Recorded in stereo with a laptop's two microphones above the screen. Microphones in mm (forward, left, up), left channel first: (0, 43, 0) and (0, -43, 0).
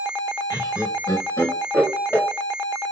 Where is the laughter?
50° left (ahead or behind), 2 m; by 2.3 s 25° left (ahead or behind), 2.5 m.